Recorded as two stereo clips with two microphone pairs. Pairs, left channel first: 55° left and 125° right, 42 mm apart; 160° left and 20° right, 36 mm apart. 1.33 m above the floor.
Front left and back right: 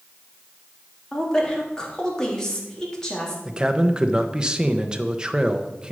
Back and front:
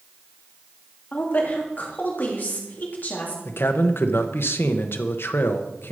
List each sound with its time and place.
1.1 s a woman speaking: 130° left, 3 m
3.5 s a man speaking: 160° left, 1.0 m